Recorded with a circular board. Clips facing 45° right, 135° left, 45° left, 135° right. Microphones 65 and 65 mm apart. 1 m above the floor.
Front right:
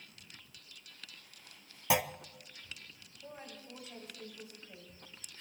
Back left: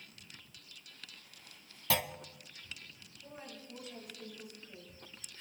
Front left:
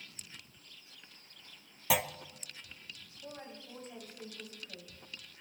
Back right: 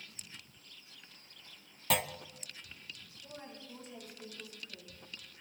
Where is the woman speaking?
10° left, 6.5 m.